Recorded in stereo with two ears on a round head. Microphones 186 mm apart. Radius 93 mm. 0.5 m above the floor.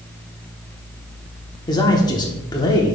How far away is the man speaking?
About 1.0 m.